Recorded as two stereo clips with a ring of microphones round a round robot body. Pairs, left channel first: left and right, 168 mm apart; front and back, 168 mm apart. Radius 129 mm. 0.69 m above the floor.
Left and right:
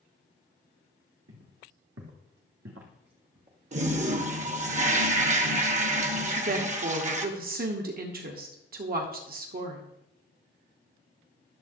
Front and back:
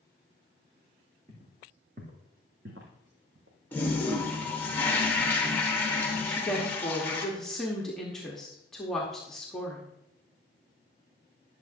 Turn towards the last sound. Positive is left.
turn(degrees=-85)